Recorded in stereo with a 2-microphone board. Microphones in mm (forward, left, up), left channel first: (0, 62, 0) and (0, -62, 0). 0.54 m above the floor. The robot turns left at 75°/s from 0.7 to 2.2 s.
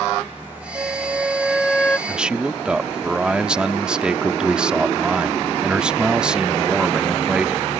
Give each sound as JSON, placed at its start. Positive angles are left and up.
{"t": 0.8, "sound": "a flute", "side_deg": -25}
{"t": 2.1, "sound": "a man speaking", "side_deg": -5}